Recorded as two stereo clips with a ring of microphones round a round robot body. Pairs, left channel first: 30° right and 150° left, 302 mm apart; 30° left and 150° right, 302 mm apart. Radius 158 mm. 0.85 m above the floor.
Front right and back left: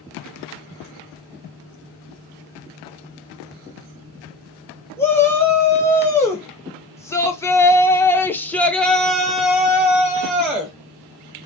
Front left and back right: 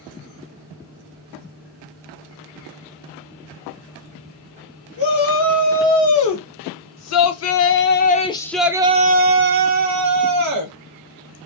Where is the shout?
50° left, 1.9 m; by 10.8 s 125° right, 1.2 m.